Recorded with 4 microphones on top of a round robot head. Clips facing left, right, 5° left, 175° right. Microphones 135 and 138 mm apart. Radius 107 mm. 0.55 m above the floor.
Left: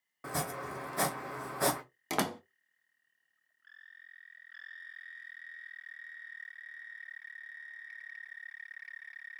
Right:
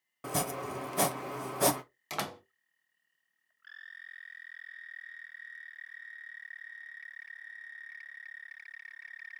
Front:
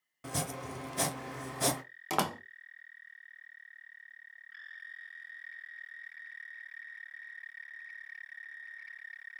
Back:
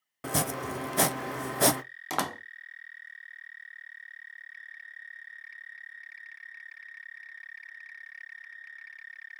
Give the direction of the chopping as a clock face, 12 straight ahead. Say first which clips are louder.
Right 3 dB, back 7 dB; 5 o'clock.